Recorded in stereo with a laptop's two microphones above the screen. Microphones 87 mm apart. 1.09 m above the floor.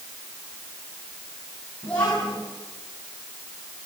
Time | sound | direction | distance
1.8 | a child speaking | 15° left (ahead or behind) | 7.5 m